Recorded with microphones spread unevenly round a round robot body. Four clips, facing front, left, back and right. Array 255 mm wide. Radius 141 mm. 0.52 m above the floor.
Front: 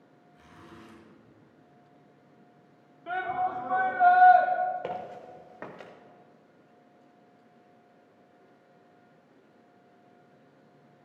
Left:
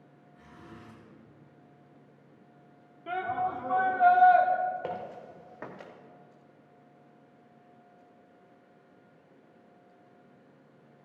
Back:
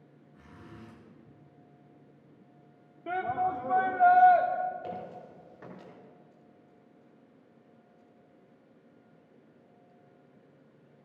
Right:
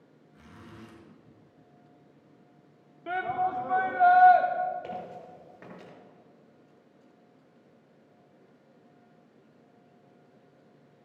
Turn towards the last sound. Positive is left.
turn(degrees=25)